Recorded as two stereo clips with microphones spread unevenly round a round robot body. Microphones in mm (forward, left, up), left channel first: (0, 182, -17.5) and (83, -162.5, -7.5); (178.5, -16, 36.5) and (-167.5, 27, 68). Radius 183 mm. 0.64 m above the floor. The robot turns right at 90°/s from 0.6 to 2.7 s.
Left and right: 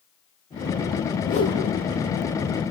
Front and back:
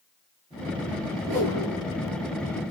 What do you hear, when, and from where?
1.2 s a whoosh: 165° left, 7 m; by 1.6 s 160° right, 7 m